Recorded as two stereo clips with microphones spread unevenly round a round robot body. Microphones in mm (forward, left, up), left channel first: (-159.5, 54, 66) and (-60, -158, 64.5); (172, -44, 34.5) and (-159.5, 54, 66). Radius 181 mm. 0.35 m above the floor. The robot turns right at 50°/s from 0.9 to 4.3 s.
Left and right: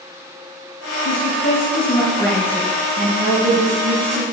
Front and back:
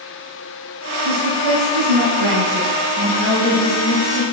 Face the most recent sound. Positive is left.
turn(degrees=-55)